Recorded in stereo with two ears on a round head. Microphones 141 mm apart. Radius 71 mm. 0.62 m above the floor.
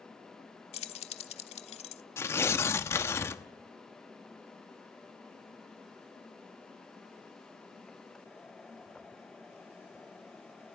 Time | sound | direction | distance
0.7 | keys jangling | 40° left (ahead or behind) | 1.2 m
2.2 | tearing paper | 15° left (ahead or behind) | 0.9 m